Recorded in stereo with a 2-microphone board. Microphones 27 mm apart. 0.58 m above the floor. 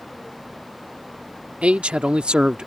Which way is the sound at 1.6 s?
50° right (ahead or behind).